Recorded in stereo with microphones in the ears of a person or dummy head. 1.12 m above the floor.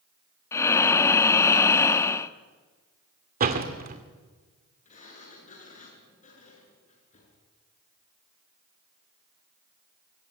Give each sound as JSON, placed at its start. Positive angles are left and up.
{"t": 0.5, "sound": "breathing", "side_deg": 15, "distance_m": 1.1}
{"t": 3.4, "sound": "a door slam", "side_deg": -45, "distance_m": 2.5}
{"t": 4.8, "sound": "a sliding door", "side_deg": 40, "distance_m": 6.5}